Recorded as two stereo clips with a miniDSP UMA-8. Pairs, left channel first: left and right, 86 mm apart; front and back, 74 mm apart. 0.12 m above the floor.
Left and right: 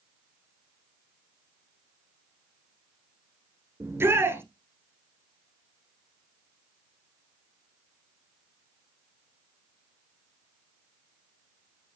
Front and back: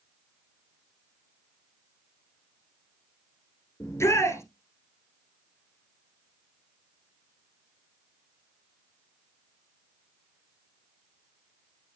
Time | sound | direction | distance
3.8 | a shout | 35° right | 1.8 m